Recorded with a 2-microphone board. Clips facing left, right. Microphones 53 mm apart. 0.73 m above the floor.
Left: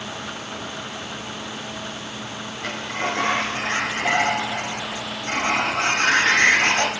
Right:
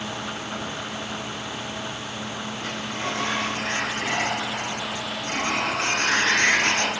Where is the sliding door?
65° left (ahead or behind), 3.5 m.